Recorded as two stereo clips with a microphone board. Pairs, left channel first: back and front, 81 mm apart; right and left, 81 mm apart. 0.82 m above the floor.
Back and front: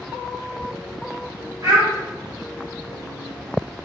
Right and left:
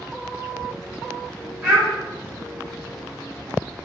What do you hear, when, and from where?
1.6 s a child speaking: 45° left, 0.7 m